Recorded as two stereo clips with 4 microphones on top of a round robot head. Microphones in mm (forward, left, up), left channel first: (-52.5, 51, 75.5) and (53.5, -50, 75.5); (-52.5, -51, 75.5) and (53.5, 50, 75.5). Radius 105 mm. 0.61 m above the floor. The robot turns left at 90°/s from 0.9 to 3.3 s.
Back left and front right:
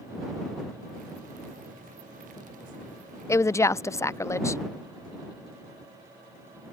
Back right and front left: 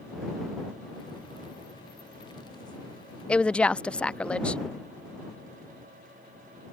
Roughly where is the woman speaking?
Behind left.